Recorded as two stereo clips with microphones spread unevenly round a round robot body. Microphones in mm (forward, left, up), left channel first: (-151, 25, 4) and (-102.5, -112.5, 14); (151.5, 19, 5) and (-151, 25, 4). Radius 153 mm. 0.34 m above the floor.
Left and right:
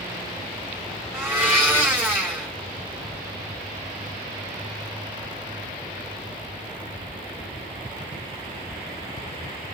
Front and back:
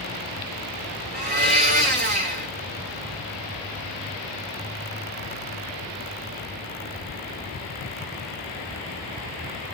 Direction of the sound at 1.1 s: 140° right.